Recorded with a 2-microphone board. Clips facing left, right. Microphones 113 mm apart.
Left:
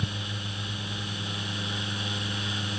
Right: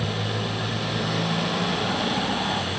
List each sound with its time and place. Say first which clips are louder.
0.0 s a motorcycle: right 9 dB; 85° right